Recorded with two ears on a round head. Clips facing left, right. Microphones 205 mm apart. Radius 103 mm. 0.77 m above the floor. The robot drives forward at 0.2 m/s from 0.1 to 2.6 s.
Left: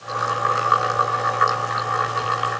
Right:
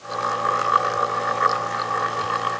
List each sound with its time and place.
Only background noise.